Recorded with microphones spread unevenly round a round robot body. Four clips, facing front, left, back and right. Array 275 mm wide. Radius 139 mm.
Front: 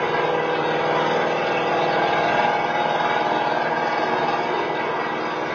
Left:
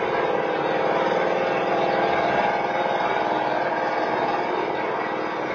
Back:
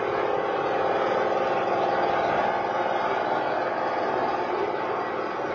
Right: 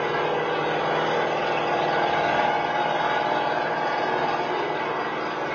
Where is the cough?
No cough in this recording.